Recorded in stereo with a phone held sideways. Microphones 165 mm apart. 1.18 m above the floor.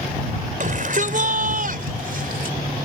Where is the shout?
55° right (ahead or behind); by 2.6 s 65° right (ahead or behind).